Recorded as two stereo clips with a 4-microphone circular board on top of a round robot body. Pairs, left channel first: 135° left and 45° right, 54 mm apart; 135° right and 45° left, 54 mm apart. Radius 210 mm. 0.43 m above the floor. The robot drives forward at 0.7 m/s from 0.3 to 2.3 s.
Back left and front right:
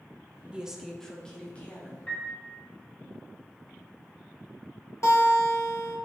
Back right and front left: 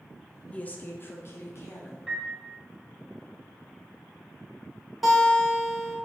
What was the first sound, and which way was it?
A woman speaking, 100° right.